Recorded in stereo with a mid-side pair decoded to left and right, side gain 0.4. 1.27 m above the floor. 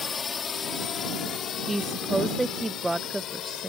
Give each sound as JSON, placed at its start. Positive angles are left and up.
{"t": 0.0, "sound": "a drone", "azimuth_deg": 45}
{"t": 1.7, "sound": "a woman speaking", "azimuth_deg": -10}